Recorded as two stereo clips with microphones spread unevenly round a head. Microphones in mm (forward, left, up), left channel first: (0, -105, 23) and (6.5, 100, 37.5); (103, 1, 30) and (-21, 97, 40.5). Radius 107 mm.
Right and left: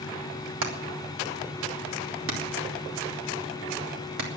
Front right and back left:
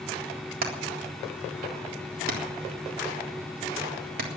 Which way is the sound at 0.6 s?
120° left.